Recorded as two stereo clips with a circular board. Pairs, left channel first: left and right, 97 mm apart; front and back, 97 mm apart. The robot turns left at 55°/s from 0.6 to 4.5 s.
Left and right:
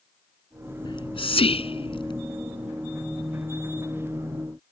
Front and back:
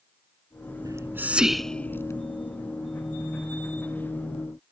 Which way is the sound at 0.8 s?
130° left.